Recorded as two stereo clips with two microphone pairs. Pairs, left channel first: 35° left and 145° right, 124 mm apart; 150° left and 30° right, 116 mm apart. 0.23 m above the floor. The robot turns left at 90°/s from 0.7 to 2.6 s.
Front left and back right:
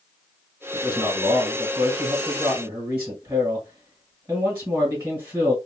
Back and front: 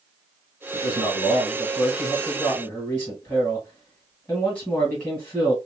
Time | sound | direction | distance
0.7 | a man speaking | straight ahead | 1.7 m